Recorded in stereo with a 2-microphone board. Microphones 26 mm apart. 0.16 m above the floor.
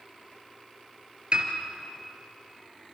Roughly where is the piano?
Right.